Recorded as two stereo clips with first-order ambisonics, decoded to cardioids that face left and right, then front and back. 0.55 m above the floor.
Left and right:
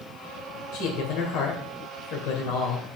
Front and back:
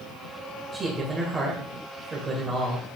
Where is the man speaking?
105° left, 2.5 m.